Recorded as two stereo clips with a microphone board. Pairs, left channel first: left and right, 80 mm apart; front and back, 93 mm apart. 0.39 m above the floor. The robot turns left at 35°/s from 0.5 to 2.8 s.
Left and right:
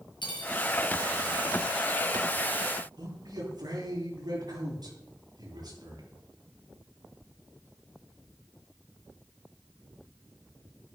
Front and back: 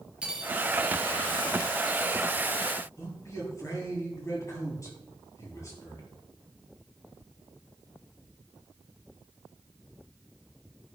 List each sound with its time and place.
0.2 s cutlery clinking: 100° left, 4 m
3.0 s a man speaking: 55° right, 10 m